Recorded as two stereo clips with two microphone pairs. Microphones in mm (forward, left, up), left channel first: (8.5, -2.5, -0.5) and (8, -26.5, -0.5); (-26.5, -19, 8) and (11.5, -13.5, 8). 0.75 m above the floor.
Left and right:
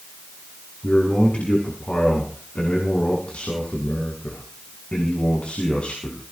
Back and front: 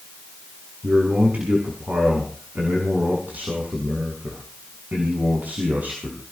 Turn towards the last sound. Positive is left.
turn(degrees=55)